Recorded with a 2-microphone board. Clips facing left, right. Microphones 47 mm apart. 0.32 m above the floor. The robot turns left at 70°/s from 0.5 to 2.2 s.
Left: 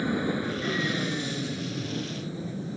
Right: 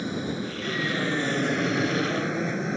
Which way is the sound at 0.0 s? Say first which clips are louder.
Left 2 dB; 15° left (ahead or behind).